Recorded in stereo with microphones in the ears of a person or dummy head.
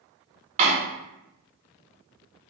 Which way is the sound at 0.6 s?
40° right (ahead or behind).